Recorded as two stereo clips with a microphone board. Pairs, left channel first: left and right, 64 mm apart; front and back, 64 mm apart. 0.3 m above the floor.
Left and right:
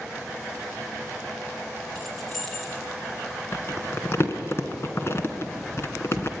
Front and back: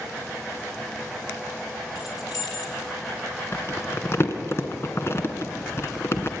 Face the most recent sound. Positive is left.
turn(degrees=45)